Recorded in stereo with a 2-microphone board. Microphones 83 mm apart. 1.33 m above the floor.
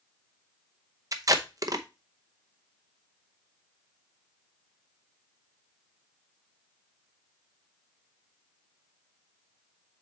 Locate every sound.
1.1 s tape being pulled: 45° right (ahead or behind), 0.7 m